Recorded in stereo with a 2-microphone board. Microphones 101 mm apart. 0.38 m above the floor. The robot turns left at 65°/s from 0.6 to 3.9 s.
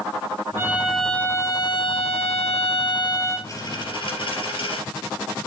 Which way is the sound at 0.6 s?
160° right.